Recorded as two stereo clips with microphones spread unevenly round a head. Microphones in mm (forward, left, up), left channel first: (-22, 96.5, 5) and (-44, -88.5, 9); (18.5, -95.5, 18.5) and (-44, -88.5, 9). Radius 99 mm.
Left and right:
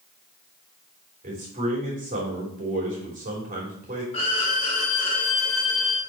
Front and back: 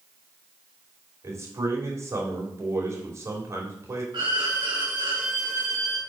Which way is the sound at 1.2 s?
145° right.